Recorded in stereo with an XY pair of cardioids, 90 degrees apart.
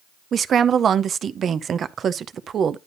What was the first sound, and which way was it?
A woman speaking, 60° right.